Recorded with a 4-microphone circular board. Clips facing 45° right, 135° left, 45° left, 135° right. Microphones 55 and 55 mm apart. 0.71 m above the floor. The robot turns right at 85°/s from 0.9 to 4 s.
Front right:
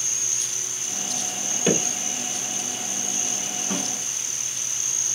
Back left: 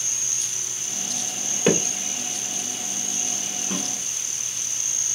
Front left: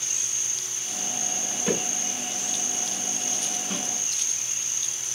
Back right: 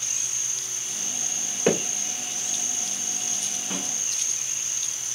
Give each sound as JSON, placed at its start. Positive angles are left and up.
{"t": 1.7, "sound": "hammering", "azimuth_deg": -170, "distance_m": 1.5}
{"t": 3.7, "sound": "a snare drum", "azimuth_deg": -65, "distance_m": 2.0}